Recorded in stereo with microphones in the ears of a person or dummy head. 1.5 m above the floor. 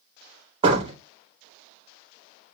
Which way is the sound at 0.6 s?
35° right (ahead or behind).